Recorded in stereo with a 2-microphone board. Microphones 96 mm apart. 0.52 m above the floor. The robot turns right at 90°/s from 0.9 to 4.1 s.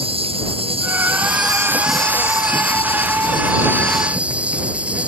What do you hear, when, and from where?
0.0 s an insect: 95° right; by 5.1 s 165° right